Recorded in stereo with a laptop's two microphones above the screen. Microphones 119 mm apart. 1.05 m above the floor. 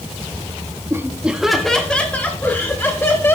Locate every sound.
0.9 s laughter: 20° right (ahead or behind), 1.5 m; by 3.4 s 20° left (ahead or behind), 4.5 m